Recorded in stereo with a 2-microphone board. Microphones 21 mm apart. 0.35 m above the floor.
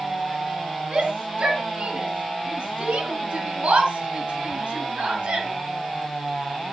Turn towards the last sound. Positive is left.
turn(degrees=-60)  # may be behind; listen again after turning